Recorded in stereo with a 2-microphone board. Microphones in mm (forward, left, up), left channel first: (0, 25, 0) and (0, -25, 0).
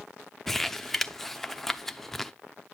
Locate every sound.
0.5 s crumpling: 5° left (ahead or behind), 0.6 m